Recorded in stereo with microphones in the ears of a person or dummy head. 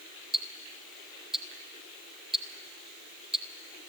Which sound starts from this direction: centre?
Ticking, at 0.3 s.